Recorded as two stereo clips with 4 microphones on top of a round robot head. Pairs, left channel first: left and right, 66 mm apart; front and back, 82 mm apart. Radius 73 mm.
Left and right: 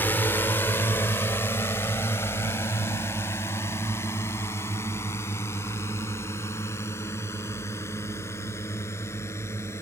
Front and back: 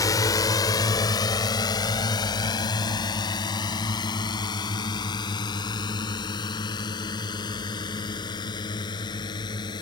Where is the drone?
30° left.